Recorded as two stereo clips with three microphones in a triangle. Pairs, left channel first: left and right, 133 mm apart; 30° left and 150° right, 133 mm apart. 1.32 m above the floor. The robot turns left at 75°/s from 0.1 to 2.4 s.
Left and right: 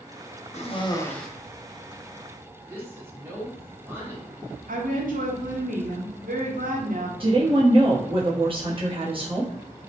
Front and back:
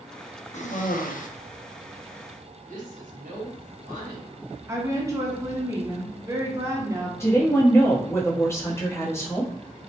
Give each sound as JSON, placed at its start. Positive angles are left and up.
{"t": 0.5, "sound": "a cough", "azimuth_deg": 60, "distance_m": 0.5}
{"t": 2.7, "sound": "a woman speaking", "azimuth_deg": -165, "distance_m": 1.0}
{"t": 4.7, "sound": "a woman speaking", "azimuth_deg": -80, "distance_m": 0.7}
{"t": 7.2, "sound": "a woman speaking", "azimuth_deg": -40, "distance_m": 0.8}